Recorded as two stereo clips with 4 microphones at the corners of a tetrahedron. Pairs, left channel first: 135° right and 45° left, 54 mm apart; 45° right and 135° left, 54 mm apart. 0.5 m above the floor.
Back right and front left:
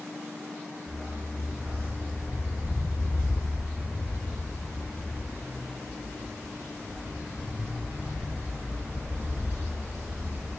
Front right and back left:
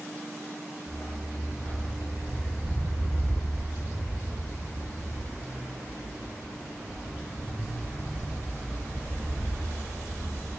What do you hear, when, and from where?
0.9 s a dog barking: 80° right, 5.5 m; by 10.5 s 10° right, 4.5 m